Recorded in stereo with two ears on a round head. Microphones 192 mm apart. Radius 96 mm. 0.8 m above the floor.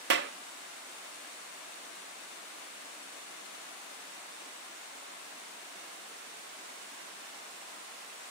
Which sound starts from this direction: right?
A clap, at 0.1 s.